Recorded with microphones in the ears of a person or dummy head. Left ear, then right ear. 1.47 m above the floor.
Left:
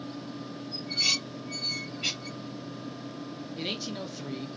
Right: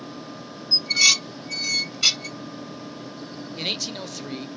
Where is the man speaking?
30° right (ahead or behind), 1.1 m.